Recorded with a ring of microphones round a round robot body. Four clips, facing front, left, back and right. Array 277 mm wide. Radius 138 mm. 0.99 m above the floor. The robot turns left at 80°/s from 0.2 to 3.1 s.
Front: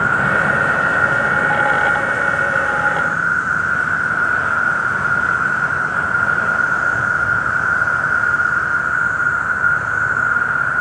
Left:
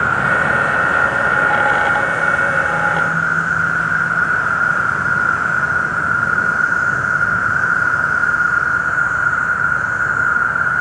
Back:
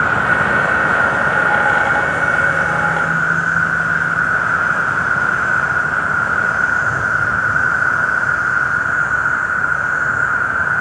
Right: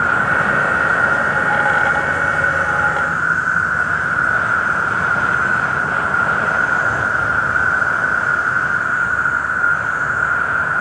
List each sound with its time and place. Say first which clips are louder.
0.0 s an insect: even, back 1 dB; 25° left, 1.6 m; by 10.8 s 150° left, 1.6 m